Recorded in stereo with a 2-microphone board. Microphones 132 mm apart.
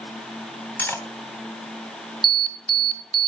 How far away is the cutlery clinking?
About 2.0 m.